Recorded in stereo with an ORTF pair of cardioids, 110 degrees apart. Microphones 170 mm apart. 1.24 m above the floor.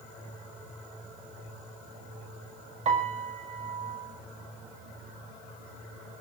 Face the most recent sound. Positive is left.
turn(degrees=-40)